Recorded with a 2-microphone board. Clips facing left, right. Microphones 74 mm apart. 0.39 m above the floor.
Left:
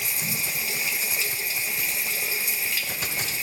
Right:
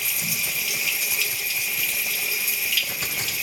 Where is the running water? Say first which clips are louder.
Right 1 dB; 30° left (ahead or behind), 1.0 m.